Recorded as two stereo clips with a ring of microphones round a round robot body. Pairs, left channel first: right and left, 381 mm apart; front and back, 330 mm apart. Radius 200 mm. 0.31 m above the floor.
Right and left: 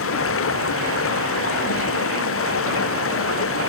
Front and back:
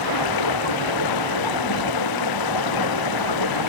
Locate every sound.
0.0 s running water: 35° right